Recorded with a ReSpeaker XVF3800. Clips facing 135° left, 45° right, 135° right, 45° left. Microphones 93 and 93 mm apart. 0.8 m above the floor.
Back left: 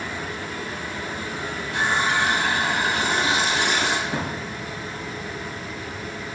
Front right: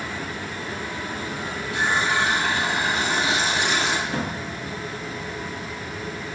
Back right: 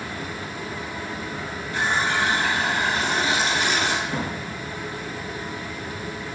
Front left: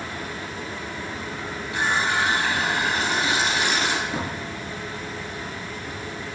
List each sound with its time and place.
1.7 s a running tap: 175° left, 3.5 m
4.1 s a drawer: 160° right, 5.5 m